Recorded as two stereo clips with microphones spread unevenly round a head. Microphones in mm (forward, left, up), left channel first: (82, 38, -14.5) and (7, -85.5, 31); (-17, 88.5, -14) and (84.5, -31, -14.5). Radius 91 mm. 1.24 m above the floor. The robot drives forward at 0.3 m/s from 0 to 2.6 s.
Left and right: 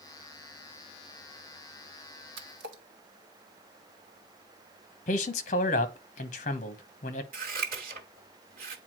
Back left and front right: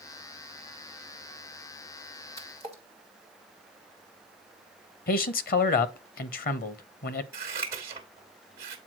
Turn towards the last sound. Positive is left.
turn(degrees=-125)